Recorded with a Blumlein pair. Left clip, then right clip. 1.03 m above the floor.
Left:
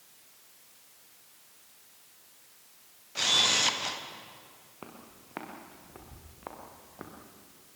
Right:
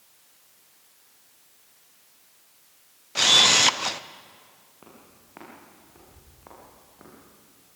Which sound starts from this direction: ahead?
Footsteps, at 4.8 s.